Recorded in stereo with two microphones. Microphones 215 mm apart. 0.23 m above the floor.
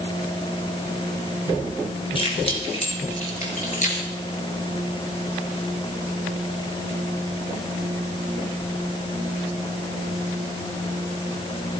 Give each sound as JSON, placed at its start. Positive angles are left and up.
{"t": 2.1, "sound": "keys jangling", "side_deg": 25, "distance_m": 3.0}